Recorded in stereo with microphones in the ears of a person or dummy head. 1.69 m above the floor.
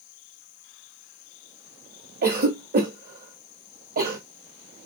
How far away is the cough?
About 1.0 m.